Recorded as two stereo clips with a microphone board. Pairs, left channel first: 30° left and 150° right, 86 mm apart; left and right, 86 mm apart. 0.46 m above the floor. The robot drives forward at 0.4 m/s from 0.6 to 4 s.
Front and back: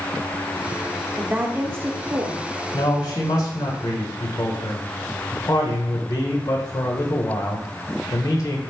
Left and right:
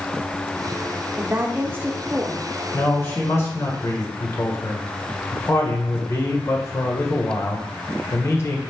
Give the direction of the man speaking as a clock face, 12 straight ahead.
11 o'clock.